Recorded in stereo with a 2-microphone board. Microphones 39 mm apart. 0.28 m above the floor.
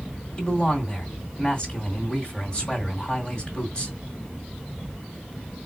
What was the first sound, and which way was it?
A man speaking, 25° left (ahead or behind).